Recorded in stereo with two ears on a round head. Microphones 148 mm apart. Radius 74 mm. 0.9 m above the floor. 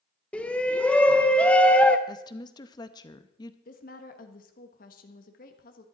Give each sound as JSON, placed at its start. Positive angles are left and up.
{"t": 0.3, "sound": "a shout", "side_deg": 10, "distance_m": 0.7}
{"t": 2.1, "sound": "a woman speaking", "side_deg": 25, "distance_m": 0.8}
{"t": 3.6, "sound": "a woman speaking", "side_deg": 55, "distance_m": 1.3}